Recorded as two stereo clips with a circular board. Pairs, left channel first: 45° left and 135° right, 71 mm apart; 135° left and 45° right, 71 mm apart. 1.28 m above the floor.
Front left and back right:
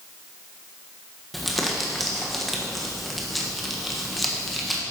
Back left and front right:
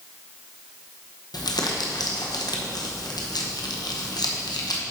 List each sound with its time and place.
1.3 s crumpling: 135° left, 1.0 m